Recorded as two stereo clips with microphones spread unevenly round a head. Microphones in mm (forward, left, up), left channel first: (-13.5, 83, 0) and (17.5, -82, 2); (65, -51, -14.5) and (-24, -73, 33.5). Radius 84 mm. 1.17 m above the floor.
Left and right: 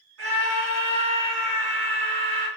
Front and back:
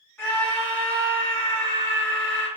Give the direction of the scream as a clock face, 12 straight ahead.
2 o'clock.